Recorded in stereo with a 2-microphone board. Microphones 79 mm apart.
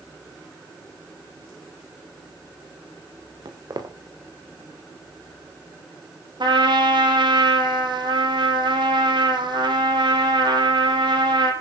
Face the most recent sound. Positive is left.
turn(degrees=-70)  # may be behind; listen again after turning